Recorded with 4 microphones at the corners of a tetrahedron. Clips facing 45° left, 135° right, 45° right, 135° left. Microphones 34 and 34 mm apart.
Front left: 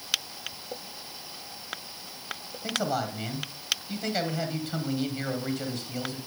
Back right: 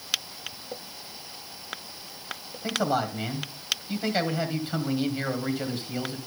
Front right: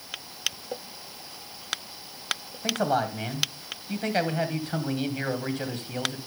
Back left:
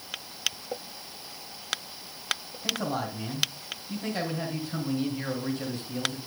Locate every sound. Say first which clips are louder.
2.6 s a man speaking: back right 3 dB, front right 5 dB; 65° right, 2.5 m